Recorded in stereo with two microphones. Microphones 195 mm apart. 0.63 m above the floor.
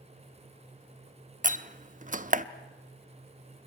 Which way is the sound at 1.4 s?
40° right (ahead or behind).